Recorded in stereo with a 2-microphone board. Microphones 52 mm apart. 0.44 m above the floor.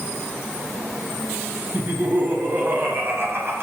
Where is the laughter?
35° right (ahead or behind), 6 m; by 3.6 s 45° right (ahead or behind), 6.5 m.